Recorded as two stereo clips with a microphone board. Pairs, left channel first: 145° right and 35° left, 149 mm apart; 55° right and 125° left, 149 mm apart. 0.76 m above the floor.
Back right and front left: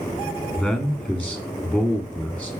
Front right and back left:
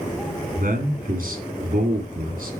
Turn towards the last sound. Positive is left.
turn(degrees=120)